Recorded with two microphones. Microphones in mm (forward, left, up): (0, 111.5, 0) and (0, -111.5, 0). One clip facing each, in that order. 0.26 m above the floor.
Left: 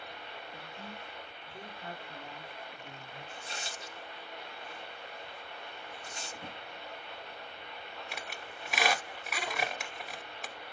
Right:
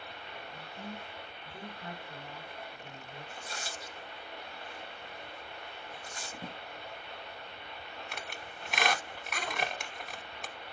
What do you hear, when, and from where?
0.5 s a man speaking: 45° right (ahead or behind), 1.7 m; by 3.2 s 30° right (ahead or behind), 3 m
3.3 s tearing paper: 25° left (ahead or behind), 1.0 m
6.3 s a drawer: 45° right (ahead or behind), 2.5 m
8.1 s a squeak: centre (ahead or behind), 0.7 m